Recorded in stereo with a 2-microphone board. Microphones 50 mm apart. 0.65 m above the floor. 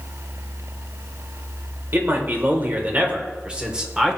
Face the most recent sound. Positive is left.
turn(degrees=-10)  # may be behind; listen again after turning